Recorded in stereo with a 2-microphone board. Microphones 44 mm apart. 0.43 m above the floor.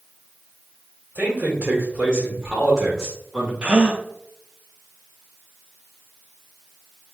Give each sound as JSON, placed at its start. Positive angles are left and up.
{"t": 1.1, "sound": "a man speaking", "side_deg": -35, "distance_m": 1.2}
{"t": 3.6, "sound": "a gasp", "side_deg": -25, "distance_m": 0.6}